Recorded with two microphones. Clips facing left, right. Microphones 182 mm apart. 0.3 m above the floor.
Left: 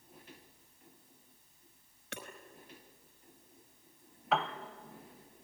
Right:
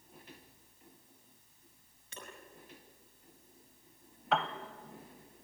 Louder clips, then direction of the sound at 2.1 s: Left 4 dB; 70° left (ahead or behind).